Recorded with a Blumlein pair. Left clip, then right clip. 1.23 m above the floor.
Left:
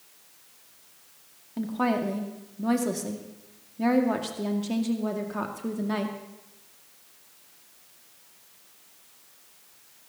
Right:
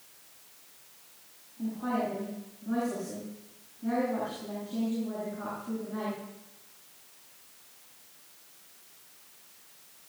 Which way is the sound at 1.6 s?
45° left.